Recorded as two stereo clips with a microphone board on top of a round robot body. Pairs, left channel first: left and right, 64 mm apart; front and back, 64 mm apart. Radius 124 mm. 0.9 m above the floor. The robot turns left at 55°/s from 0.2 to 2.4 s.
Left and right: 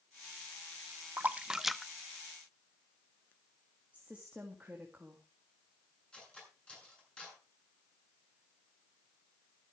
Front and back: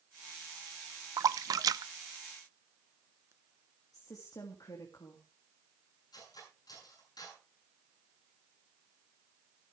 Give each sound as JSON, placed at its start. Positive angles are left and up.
{"t": 1.2, "sound": "a splash", "azimuth_deg": -150, "distance_m": 0.5}
{"t": 3.9, "sound": "a woman speaking", "azimuth_deg": -20, "distance_m": 2.0}
{"t": 6.1, "sound": "cutlery clinking", "azimuth_deg": 15, "distance_m": 8.0}